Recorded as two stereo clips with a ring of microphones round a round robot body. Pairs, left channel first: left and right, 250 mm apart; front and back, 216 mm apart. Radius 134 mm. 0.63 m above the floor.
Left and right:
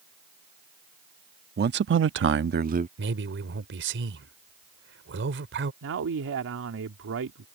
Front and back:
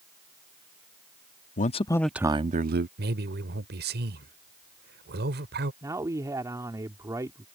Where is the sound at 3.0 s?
135° right.